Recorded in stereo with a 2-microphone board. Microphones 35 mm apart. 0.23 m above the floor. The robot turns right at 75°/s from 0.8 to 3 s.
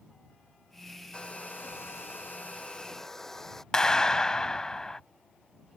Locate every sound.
1.1 s a hair dryer: 30° left; by 3.6 s 170° left
3.7 s a clap: 15° left (ahead or behind)